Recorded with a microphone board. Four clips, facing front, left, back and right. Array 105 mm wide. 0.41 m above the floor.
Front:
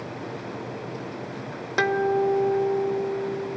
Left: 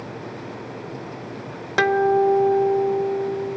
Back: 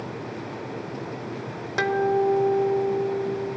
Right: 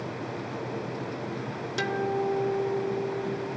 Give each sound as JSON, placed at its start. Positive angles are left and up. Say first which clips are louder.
{"t": 1.8, "sound": "a guitar", "louder": "left 11 dB, even", "azimuth_deg": 80, "distance_m": 0.5}